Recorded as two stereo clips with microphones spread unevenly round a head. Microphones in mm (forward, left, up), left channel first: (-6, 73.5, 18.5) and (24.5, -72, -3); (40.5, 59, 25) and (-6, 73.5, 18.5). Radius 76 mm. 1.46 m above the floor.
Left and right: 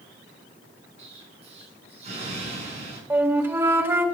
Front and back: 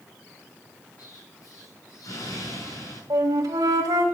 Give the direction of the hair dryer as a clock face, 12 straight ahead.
No hair dryer in this recording.